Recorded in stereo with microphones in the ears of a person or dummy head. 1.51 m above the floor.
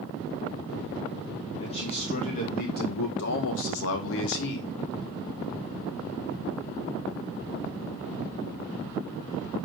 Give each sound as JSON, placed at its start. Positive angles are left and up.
{"t": 1.6, "sound": "a man speaking", "side_deg": 35, "distance_m": 2.0}